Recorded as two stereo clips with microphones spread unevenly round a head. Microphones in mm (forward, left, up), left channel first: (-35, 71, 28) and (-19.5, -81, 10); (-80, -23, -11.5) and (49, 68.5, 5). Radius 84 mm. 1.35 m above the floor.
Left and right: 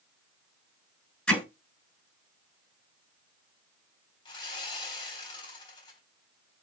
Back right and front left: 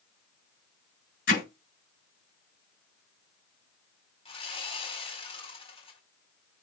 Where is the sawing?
160° left, 4 m.